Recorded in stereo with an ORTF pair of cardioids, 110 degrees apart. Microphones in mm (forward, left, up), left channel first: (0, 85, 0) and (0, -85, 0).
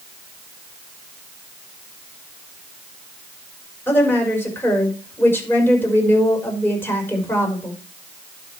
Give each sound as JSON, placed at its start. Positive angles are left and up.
{"t": 3.9, "sound": "a woman speaking", "azimuth_deg": 10, "distance_m": 5.5}